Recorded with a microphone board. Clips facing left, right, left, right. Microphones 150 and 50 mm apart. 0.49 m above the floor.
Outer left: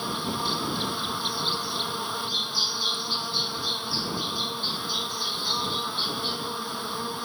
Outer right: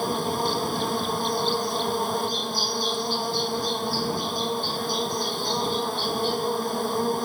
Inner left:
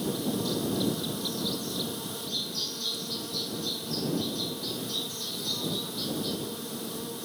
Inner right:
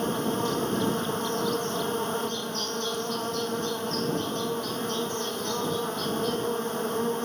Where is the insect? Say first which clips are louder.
Outer right 6 dB, inner right 3 dB; 45° right (ahead or behind).